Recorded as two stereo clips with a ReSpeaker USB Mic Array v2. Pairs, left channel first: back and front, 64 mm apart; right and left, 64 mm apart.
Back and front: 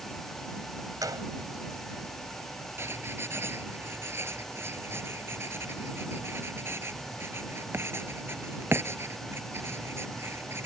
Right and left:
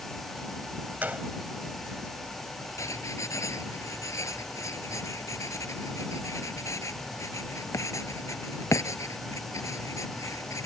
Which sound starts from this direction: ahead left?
A gunshot, at 1.0 s.